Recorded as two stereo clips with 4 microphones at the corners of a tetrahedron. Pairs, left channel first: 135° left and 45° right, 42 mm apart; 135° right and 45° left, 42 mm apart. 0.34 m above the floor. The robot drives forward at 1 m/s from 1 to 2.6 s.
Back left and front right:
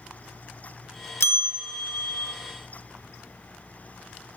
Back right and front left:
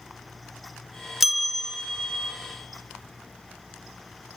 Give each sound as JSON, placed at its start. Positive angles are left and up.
{"t": 1.2, "sound": "a bell", "azimuth_deg": 125, "distance_m": 0.8}